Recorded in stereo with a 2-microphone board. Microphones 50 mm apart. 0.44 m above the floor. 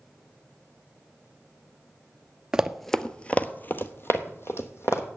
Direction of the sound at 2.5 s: 15° right (ahead or behind).